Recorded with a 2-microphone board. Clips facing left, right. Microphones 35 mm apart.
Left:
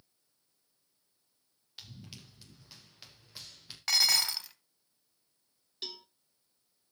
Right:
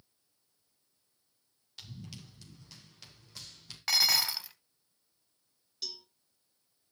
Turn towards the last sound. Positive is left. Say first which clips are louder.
# even
turn(degrees=35)  # may be behind; listen again after turning